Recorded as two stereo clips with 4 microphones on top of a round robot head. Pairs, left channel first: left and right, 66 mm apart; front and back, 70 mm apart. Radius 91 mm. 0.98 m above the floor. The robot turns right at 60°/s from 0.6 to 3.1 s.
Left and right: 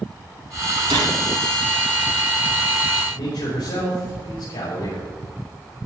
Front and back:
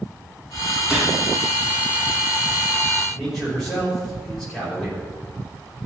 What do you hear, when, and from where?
0.9 s a gunshot: 95° right, 2.5 m; by 1.1 s 80° right, 2.5 m
3.1 s a man speaking: 90° left, 5.5 m